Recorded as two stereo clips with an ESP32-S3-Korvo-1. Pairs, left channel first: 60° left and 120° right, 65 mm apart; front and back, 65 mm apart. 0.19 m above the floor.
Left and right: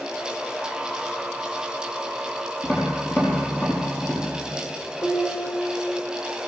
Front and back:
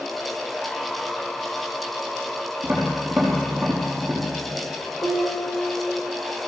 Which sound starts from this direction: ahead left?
Dishes clattering, at 5.0 s.